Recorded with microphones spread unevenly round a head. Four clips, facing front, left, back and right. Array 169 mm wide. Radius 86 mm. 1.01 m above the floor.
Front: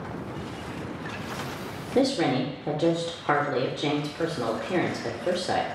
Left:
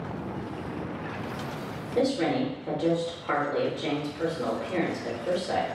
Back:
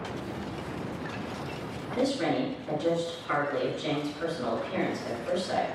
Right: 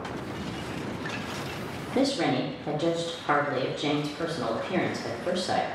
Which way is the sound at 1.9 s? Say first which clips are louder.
Even, front 4 dB; 20° right.